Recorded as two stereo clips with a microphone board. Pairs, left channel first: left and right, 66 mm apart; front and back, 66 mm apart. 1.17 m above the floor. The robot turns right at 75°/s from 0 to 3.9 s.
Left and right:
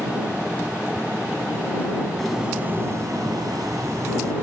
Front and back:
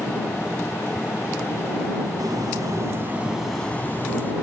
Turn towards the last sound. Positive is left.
turn(degrees=-55)